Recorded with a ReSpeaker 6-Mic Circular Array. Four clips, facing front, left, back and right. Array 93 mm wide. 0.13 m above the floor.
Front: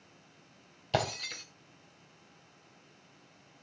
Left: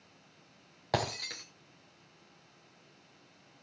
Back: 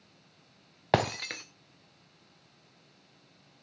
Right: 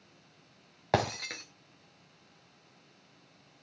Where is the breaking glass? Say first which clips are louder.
Right 4 dB, back 5 dB; 165° right, 2 m.